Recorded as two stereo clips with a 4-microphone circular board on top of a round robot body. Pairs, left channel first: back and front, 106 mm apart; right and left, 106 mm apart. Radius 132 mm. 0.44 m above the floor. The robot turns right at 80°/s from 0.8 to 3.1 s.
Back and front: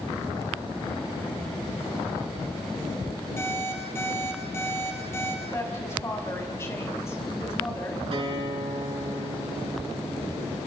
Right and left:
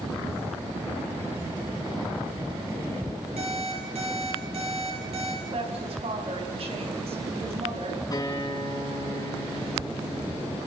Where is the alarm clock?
110° left, 6.5 m.